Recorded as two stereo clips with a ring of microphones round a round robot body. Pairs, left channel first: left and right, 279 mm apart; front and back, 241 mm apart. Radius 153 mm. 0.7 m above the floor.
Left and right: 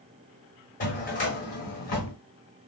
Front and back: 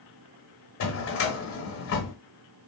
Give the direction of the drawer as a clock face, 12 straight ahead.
11 o'clock.